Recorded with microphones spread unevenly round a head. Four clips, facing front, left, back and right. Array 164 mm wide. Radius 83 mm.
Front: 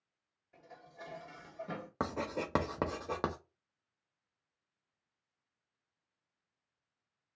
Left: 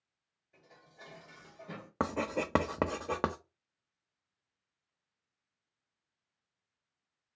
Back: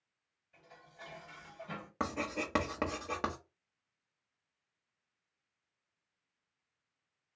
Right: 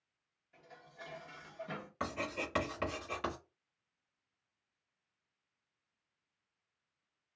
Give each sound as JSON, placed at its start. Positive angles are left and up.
{"t": 0.5, "sound": "dishes clattering", "azimuth_deg": -5, "distance_m": 1.7}
{"t": 2.0, "sound": "writing", "azimuth_deg": 70, "distance_m": 0.7}